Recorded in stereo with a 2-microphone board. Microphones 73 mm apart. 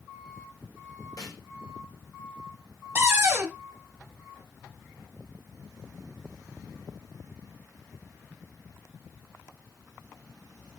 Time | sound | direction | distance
1.2 | a snare drum | 55° left (ahead or behind) | 1.8 m
3.0 | a cupboard door | 35° right (ahead or behind) | 0.9 m